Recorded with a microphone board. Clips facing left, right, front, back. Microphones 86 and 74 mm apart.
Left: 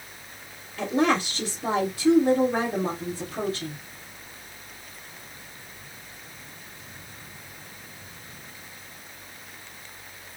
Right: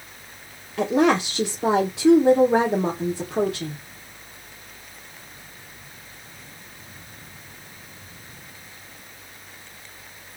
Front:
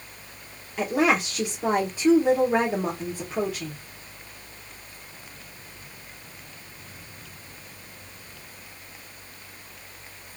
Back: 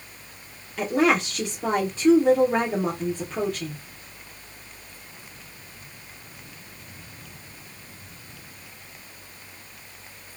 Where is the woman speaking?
85° right, 1.2 m.